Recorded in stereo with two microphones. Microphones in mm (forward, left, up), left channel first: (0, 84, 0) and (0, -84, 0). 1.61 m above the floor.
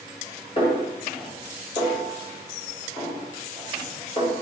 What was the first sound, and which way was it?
A snare drum, 35° left (ahead or behind).